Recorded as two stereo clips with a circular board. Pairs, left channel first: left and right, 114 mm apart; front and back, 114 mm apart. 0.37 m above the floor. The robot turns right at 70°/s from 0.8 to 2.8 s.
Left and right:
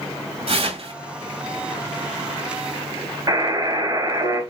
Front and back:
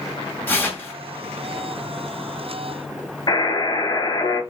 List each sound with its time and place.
0.5 s tearing paper: 70° right, 2.5 m; by 0.9 s 60° right, 2.5 m
3.3 s a buzzer: 45° right, 2.5 m